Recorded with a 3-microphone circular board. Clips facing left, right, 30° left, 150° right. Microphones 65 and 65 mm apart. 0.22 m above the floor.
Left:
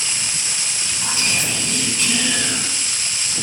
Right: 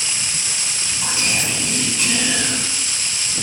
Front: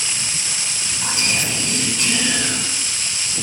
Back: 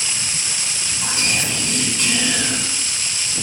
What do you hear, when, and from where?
1.0 s whispering: 40° right, 1.0 m